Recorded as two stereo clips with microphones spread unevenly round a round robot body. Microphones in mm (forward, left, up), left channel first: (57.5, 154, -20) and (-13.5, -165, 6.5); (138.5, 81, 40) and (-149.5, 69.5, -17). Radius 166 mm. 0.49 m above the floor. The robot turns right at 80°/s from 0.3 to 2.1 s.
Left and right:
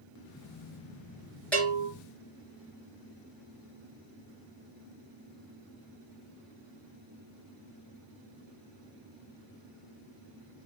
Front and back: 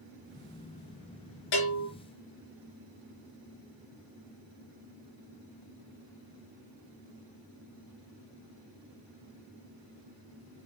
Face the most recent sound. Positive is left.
turn(degrees=35)